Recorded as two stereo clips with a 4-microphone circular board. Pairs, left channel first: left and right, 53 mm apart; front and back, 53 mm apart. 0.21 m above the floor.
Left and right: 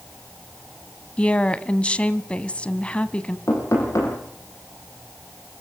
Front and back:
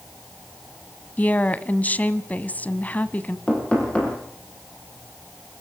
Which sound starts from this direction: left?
Knocking, at 3.5 s.